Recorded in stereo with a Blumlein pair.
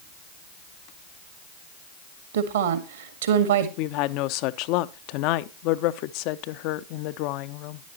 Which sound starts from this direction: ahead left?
A woman speaking, at 3.8 s.